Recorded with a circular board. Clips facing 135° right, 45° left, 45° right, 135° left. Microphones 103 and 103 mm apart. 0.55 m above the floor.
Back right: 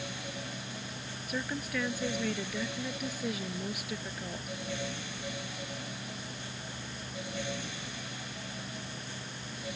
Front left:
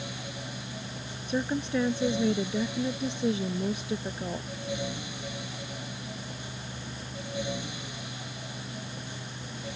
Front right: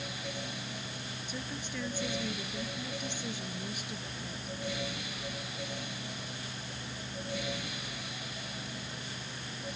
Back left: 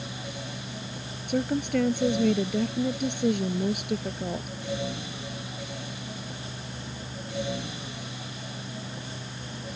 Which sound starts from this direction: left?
A woman speaking, at 1.3 s.